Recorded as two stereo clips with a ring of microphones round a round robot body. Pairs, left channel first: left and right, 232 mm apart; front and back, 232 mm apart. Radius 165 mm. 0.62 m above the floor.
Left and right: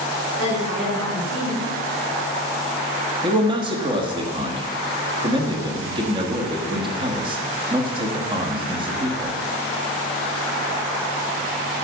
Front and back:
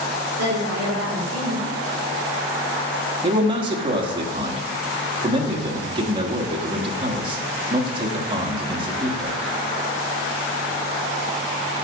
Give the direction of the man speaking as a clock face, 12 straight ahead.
5 o'clock.